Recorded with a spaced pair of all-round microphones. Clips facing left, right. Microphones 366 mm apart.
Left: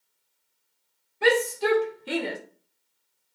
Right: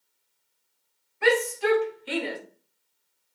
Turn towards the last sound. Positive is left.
turn(degrees=60)  # may be behind; listen again after turning